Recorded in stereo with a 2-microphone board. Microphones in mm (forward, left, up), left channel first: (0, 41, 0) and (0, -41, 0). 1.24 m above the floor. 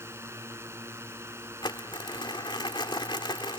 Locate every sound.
0.0 s a drone: 35° right (ahead or behind)
1.6 s crumpling: 70° left (ahead or behind)